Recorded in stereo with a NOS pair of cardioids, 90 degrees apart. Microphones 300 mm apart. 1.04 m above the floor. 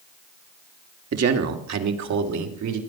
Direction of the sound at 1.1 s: 50° right.